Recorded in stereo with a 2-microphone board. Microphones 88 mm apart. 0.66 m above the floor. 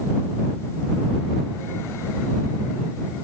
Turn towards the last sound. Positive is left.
No sound to turn to.